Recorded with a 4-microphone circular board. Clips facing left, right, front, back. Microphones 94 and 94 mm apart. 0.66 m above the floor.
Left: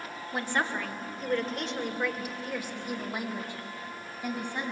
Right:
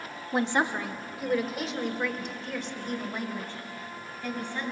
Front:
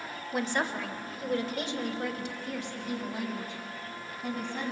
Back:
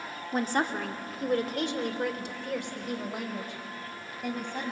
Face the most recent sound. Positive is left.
turn(degrees=160)